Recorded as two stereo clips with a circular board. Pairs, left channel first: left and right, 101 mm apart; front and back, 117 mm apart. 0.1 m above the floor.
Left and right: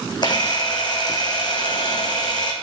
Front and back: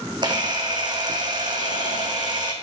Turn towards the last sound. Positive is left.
turn(degrees=130)